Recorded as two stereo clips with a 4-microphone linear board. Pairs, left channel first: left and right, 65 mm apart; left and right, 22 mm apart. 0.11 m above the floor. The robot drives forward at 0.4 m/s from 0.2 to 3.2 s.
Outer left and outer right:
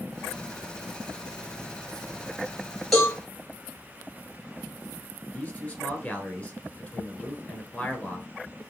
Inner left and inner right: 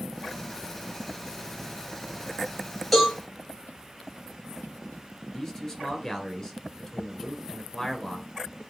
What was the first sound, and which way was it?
A cowbell, 5° left (ahead or behind).